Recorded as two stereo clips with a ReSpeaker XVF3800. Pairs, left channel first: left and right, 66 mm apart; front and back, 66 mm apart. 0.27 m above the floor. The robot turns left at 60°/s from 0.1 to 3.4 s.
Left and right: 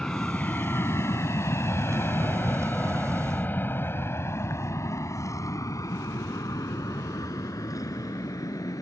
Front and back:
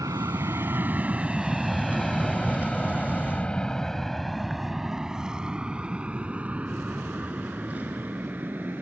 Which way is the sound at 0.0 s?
170° left.